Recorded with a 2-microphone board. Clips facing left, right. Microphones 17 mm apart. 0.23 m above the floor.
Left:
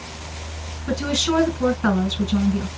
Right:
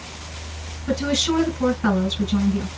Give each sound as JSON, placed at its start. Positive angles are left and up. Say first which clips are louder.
{"t": 0.9, "sound": "a woman speaking", "louder": "even", "side_deg": 5, "distance_m": 2.5}